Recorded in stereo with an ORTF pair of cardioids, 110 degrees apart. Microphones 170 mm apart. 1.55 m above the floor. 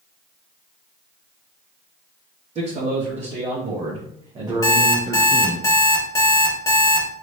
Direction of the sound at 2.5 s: 40° right.